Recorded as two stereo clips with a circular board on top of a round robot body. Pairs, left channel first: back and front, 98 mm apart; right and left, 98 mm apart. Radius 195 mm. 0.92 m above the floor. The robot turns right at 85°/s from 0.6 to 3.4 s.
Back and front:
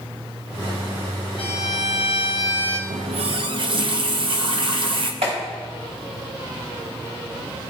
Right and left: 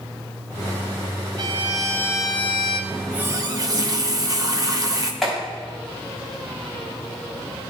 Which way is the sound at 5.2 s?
Straight ahead.